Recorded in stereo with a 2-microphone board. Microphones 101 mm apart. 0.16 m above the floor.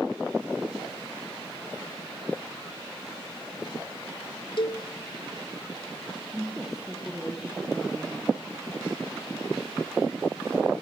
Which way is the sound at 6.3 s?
Centre (ahead or behind).